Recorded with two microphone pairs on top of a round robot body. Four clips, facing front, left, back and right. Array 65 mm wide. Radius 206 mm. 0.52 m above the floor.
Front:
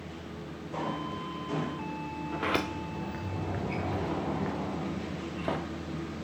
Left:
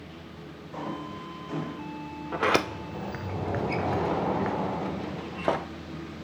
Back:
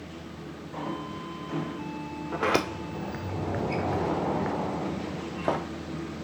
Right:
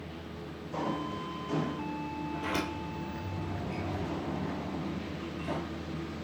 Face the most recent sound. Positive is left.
turn(degrees=120)